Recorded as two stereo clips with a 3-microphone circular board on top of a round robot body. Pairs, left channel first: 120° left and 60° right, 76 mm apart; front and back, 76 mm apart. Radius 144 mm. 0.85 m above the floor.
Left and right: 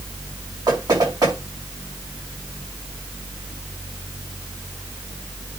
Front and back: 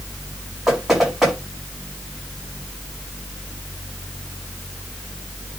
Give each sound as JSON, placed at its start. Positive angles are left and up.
{"t": 0.7, "sound": "knocking", "azimuth_deg": -95, "distance_m": 6.5}